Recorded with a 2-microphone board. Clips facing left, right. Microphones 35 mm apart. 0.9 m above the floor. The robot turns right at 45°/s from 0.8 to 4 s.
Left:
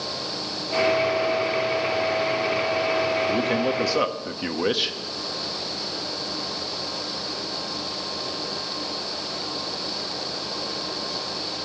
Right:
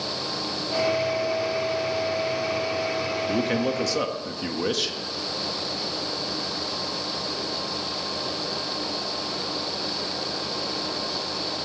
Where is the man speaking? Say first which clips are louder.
Left 2 dB; 5° right, 1.2 m; by 5.0 s 25° left, 1.2 m.